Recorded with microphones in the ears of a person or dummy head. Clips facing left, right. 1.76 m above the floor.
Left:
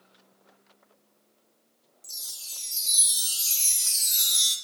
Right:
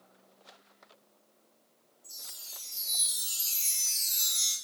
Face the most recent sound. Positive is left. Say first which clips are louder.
# right 2 dB
turn(degrees=50)  # may be behind; listen again after turning